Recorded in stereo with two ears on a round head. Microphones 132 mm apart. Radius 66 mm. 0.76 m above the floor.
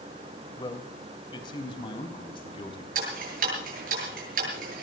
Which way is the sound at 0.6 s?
30° left (ahead or behind).